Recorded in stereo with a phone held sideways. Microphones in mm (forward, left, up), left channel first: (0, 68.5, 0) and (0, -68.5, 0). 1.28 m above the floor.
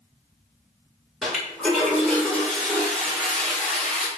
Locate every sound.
1.2 s a toilet flushing: 5° left (ahead or behind), 1.9 m